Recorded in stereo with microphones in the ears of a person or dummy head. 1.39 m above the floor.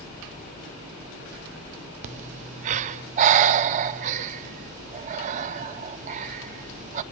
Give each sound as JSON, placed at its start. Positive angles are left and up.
{"t": 2.0, "sound": "breathing", "side_deg": -45, "distance_m": 0.5}